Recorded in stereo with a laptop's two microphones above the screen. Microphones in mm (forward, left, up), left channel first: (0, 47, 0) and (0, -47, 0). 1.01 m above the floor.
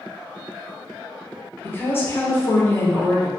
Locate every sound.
1.6 s a woman speaking: 25° left (ahead or behind), 0.7 m